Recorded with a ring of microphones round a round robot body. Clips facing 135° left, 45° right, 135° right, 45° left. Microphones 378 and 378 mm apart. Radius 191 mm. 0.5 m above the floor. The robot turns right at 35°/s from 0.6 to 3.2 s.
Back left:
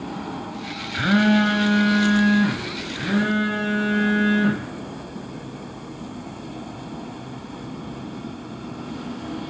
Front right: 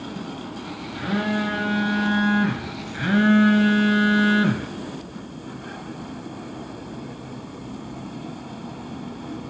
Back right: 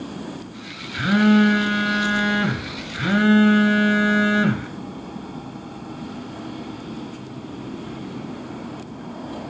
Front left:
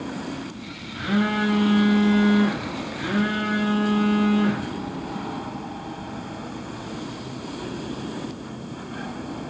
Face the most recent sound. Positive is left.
turn(degrees=-105)